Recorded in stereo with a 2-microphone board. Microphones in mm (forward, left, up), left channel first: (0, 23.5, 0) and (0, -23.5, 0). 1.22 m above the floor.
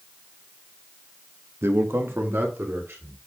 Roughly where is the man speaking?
Right.